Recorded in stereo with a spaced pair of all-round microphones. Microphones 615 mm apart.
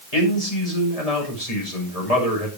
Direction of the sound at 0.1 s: 75° left (ahead or behind).